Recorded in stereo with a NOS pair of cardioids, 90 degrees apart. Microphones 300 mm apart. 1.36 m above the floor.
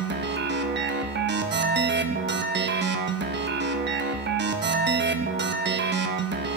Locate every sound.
0.0 s a machine running: 40° right, 1.1 m